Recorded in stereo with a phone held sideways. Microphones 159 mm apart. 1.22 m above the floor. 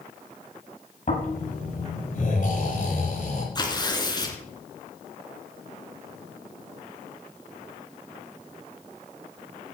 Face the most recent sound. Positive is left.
turn(degrees=25)  # may be behind; listen again after turning